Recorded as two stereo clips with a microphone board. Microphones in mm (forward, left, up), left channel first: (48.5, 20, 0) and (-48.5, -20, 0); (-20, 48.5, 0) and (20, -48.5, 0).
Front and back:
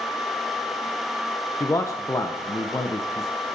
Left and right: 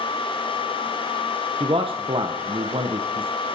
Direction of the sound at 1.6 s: 35° right.